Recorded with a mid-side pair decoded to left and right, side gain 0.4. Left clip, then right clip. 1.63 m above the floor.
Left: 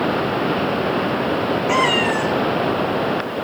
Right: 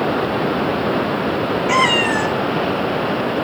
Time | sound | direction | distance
1.7 | a cat meowing | 35° right | 4.5 m